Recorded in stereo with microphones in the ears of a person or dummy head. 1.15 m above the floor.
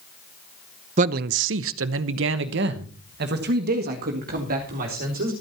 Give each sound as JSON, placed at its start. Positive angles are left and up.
{"t": 1.0, "sound": "a man speaking", "side_deg": -40, "distance_m": 0.6}